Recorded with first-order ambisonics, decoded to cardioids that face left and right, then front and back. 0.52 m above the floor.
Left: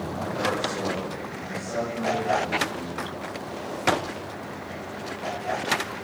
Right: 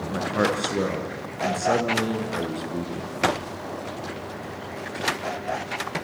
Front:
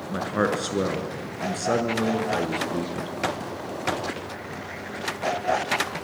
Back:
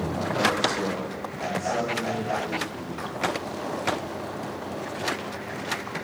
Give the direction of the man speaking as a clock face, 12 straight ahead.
1 o'clock.